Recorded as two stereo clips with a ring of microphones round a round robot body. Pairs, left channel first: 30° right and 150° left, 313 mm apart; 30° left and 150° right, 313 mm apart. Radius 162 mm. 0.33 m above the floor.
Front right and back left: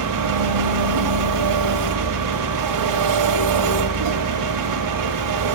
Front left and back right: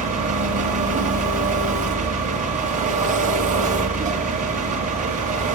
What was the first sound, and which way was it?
An engine running, 145° left.